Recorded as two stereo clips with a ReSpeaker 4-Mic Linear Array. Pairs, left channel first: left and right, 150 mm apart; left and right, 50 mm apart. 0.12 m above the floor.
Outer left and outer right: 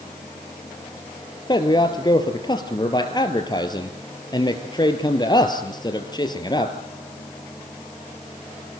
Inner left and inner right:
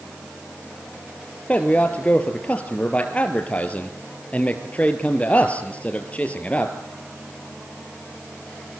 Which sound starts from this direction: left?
A man speaking, at 1.5 s.